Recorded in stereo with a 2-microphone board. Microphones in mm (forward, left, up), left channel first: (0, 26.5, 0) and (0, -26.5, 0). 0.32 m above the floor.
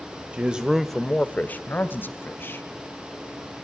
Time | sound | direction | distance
0.3 | a man speaking | 25° right (ahead or behind) | 1.3 m